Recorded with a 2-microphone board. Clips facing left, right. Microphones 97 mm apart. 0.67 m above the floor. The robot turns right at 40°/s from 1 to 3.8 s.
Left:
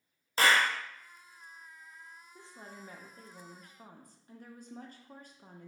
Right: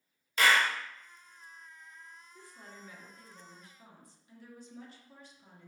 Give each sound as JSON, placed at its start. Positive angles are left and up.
{"t": 0.4, "sound": "a clap", "side_deg": 35, "distance_m": 0.6}
{"t": 2.4, "sound": "a woman speaking", "azimuth_deg": 30, "distance_m": 0.7}